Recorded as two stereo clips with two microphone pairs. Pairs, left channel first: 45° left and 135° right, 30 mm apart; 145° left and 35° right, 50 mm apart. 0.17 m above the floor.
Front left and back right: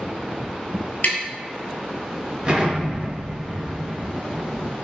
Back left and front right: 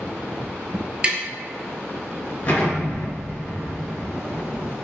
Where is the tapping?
25° left, 0.6 m.